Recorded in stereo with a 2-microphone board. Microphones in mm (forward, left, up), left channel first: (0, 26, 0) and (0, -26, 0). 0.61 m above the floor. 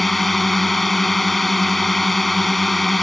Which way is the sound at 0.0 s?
Centre (ahead or behind).